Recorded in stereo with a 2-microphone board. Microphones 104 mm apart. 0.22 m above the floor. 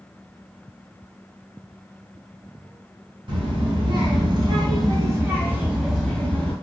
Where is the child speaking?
60° right (ahead or behind), 1.4 m; by 6.5 s 20° left (ahead or behind), 0.8 m.